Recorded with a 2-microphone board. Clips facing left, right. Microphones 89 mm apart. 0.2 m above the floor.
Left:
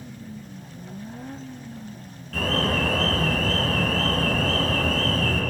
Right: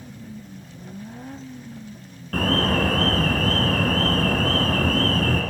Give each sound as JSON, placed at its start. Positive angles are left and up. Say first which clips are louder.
{"t": 2.3, "sound": "an alarm", "louder": "right 3 dB", "side_deg": -55, "distance_m": 3.5}